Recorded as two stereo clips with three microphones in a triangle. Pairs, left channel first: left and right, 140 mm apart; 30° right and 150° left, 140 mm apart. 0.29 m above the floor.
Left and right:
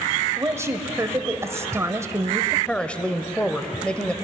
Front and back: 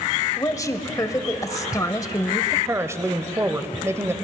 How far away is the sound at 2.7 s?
About 0.9 m.